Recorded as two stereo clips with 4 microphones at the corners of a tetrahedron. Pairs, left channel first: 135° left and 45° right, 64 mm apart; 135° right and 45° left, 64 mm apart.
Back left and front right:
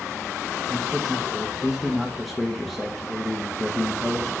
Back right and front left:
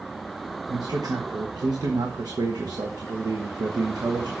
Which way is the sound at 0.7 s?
45° left.